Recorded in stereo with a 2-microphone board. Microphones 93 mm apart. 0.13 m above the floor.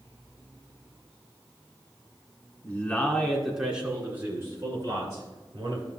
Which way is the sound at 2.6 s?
20° left (ahead or behind).